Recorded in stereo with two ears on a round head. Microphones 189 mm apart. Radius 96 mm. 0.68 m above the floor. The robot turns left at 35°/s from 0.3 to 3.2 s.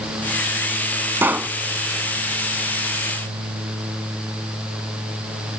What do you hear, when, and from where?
1.2 s a pop: 15° right (ahead or behind); by 1.6 s centre (ahead or behind)